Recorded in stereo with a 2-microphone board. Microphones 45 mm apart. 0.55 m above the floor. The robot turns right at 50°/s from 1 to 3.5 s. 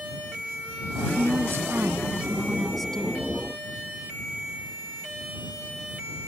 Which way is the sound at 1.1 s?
80° right.